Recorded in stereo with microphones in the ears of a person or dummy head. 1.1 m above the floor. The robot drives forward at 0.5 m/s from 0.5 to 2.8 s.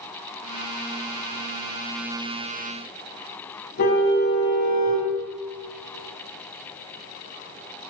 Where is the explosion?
I don't hear an explosion.